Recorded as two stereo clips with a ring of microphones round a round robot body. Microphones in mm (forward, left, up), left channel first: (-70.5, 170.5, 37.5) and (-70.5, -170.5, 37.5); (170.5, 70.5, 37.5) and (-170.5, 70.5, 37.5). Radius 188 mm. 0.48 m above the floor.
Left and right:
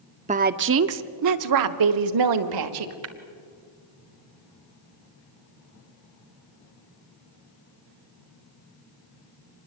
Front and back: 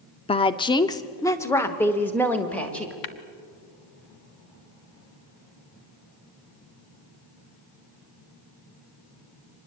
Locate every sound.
0.3 s a woman speaking: 50° right, 0.7 m; by 2.9 s 85° right, 1.8 m
3.0 s tapping: 35° right, 1.0 m